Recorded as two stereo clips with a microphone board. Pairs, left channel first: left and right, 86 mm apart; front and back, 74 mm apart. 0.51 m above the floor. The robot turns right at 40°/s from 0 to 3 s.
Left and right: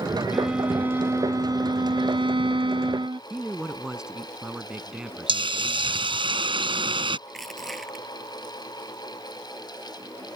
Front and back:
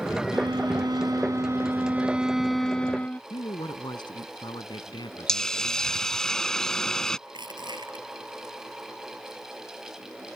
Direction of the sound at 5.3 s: 85° right.